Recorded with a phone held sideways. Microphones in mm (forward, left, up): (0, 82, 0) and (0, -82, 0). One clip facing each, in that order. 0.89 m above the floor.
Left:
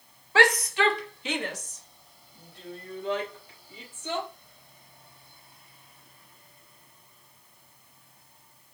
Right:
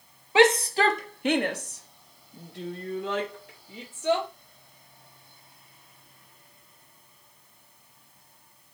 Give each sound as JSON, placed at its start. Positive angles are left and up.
{"t": 0.3, "sound": "a shout", "side_deg": -20, "distance_m": 1.0}